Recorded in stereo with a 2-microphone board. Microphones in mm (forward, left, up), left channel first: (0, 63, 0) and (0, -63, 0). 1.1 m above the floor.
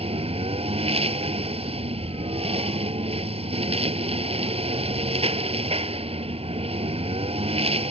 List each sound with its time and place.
0.0 s a lawn mower: 50° right (ahead or behind)